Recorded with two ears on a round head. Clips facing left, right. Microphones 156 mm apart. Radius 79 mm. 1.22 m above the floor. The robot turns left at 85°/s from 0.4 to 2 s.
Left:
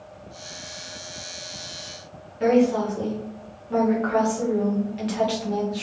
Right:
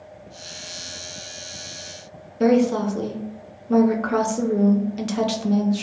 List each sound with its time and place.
2.4 s a woman speaking: 50° right (ahead or behind), 0.6 m